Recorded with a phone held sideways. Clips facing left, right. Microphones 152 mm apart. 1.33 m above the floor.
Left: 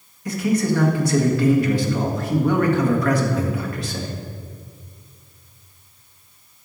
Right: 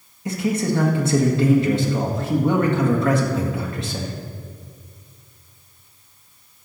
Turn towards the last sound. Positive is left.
turn(degrees=-25)  # may be behind; listen again after turning